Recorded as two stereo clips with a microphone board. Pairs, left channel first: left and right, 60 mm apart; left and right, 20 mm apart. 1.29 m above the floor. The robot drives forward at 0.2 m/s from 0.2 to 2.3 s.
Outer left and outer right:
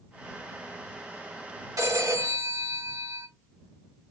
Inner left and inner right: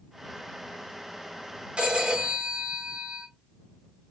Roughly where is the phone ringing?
Right.